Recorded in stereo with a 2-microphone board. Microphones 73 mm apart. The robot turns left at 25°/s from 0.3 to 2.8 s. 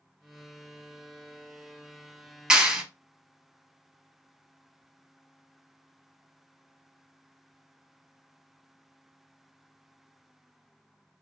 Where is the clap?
10° right (ahead or behind), 0.8 m.